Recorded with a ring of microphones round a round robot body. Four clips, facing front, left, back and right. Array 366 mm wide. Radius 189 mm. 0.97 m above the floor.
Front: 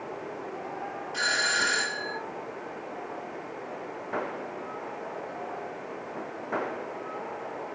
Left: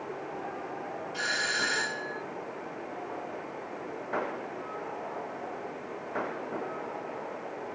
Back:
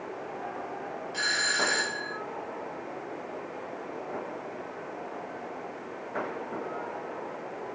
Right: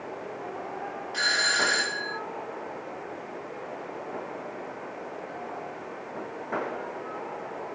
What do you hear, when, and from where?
1.1 s a doorbell: 85° right, 2.5 m